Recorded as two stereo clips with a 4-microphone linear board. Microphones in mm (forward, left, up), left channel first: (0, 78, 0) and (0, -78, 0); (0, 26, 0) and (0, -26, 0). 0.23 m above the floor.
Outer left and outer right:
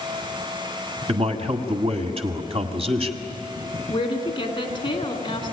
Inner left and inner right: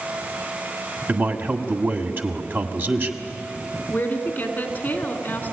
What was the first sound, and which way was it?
A man speaking, 40° right (ahead or behind).